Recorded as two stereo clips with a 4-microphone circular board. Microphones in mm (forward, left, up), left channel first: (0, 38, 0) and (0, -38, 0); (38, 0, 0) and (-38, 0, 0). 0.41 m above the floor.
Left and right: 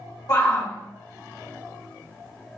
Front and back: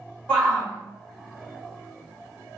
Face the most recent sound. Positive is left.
turn(degrees=65)